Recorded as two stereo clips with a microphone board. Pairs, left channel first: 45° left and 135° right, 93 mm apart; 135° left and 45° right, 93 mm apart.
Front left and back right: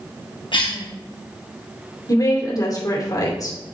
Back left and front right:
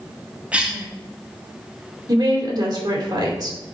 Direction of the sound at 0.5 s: 30° left.